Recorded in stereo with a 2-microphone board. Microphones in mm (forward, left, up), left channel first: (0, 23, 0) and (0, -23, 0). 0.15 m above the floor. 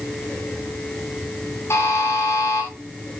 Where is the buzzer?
75° left (ahead or behind), 10 m.